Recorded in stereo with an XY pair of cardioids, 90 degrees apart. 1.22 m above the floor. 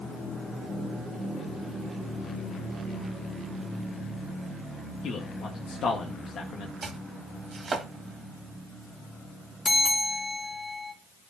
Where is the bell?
40° left, 2 m.